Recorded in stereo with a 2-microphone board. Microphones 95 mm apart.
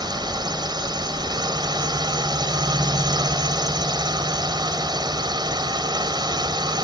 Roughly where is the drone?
Right.